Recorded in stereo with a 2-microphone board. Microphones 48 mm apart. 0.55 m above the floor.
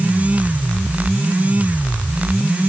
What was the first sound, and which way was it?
Only background noise.